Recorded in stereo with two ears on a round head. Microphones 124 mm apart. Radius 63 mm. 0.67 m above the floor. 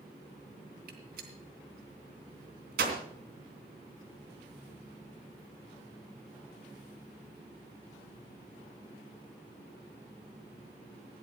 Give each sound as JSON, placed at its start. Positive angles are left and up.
{"t": 0.9, "sound": "a gunshot", "side_deg": -80, "distance_m": 3.0}